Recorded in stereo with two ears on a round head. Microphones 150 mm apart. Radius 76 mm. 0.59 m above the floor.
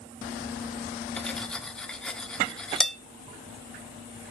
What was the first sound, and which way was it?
Cutlery clinking, 5° left (ahead or behind).